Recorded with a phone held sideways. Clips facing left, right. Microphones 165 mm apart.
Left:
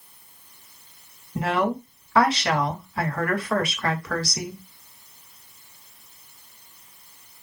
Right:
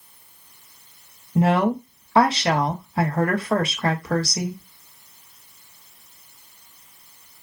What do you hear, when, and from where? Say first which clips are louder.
1.4 s a woman speaking: right 5 dB; 25° right (ahead or behind), 0.6 m